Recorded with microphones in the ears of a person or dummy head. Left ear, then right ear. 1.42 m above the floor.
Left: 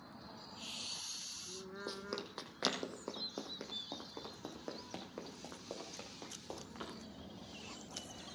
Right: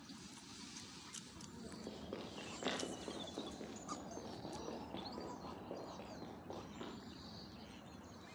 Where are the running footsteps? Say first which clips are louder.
Left 5 dB; 60° left (ahead or behind), 3 m; by 6.9 s 75° left (ahead or behind), 5.5 m.